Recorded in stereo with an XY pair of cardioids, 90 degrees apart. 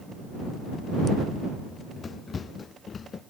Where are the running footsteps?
40° left; by 3.2 s 50° left.